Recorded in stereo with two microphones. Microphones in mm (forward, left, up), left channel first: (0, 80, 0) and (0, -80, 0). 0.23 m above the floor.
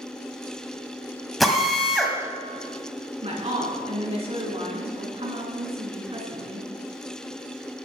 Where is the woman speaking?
40° right (ahead or behind), 2.5 m.